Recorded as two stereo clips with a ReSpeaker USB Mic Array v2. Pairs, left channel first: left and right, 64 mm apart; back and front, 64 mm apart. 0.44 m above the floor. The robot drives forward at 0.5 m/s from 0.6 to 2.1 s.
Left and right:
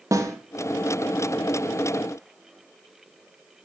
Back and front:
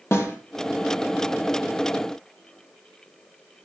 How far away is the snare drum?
About 4 m.